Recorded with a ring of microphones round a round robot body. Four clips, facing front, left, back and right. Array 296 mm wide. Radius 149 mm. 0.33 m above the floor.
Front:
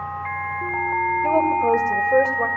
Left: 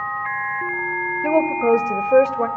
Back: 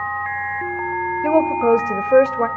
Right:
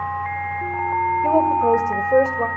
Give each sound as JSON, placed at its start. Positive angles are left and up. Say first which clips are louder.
{"t": 1.2, "sound": "a woman speaking", "louder": "left 1 dB, back 4 dB", "azimuth_deg": 160, "distance_m": 1.4}